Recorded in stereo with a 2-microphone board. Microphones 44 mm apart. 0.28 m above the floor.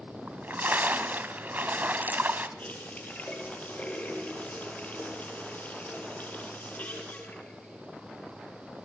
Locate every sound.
0.3 s a splash: 40° right (ahead or behind), 1.6 m
2.6 s a running tap: 35° left (ahead or behind), 4.5 m